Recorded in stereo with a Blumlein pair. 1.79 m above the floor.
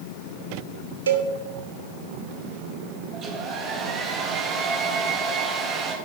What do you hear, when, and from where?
1.1 s a cowbell: 70° right, 1.4 m
3.1 s a hair dryer: 25° right, 3 m